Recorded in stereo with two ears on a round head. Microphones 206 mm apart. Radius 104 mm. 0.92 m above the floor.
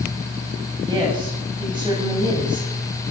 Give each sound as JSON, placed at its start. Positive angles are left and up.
{"t": 0.8, "sound": "a woman speaking", "side_deg": -20, "distance_m": 7.0}